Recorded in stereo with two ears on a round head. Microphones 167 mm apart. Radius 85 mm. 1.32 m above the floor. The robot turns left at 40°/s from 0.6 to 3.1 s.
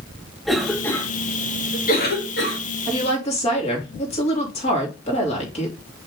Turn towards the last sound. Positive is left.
turn(degrees=35)  # may be behind; listen again after turning